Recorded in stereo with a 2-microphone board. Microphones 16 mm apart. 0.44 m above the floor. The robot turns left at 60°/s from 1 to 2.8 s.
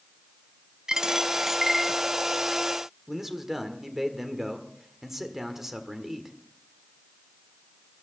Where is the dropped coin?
55° right (ahead or behind), 1.0 m; by 2.6 s 40° left (ahead or behind), 1.0 m.